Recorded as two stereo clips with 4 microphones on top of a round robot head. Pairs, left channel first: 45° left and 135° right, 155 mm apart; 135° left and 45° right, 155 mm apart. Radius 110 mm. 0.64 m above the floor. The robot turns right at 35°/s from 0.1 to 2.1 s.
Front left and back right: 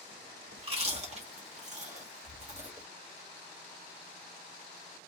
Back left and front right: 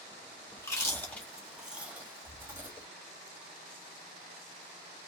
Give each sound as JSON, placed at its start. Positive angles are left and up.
{"t": 0.6, "sound": "chewing", "azimuth_deg": -165, "distance_m": 1.6}